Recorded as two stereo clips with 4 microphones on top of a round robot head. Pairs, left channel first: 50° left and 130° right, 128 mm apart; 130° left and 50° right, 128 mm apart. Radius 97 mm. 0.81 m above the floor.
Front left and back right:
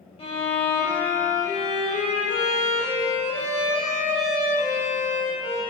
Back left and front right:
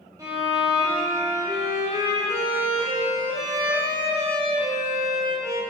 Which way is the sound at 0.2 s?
10° left.